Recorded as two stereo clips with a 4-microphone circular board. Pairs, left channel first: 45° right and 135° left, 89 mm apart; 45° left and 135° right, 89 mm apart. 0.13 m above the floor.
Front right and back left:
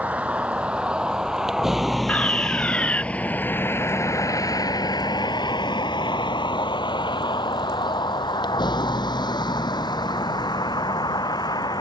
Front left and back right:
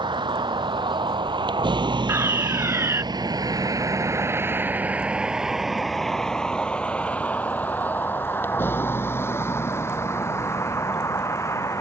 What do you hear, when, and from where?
0.0 s a vehicle: 150° right; by 11.8 s 10° right
2.1 s a fire alarm: 105° right